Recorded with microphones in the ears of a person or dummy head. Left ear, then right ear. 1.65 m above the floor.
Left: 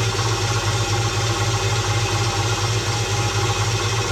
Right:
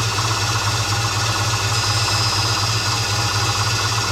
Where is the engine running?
60° right (ahead or behind), 1.8 m.